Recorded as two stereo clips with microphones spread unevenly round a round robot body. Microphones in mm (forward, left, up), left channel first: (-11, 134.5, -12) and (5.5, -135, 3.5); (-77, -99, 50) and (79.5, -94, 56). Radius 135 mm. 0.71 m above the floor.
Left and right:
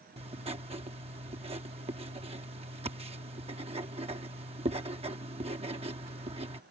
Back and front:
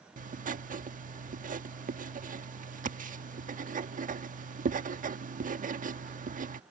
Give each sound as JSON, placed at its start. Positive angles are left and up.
{"t": 0.2, "sound": "writing", "azimuth_deg": -20}